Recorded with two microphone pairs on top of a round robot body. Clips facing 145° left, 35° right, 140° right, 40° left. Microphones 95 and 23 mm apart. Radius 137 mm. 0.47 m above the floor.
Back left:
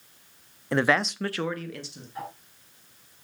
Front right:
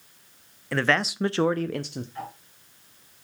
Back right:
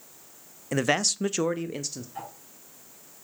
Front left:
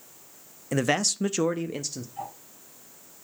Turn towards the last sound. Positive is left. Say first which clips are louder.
# back left 4 dB, front left 2 dB
turn(degrees=-140)